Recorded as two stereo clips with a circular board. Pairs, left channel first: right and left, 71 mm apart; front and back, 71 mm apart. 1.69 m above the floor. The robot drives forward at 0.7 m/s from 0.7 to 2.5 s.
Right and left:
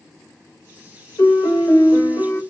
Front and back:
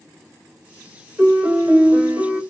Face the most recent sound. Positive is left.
turn(degrees=-135)